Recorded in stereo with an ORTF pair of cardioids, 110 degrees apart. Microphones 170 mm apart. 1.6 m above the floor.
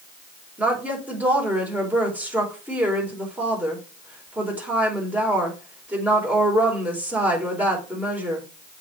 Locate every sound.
0.6 s a woman speaking: 10° right, 5 m